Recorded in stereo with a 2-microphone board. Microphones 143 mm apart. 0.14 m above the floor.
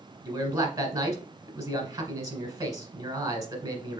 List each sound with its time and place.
0.2 s a man speaking: 25° right (ahead or behind), 1.3 m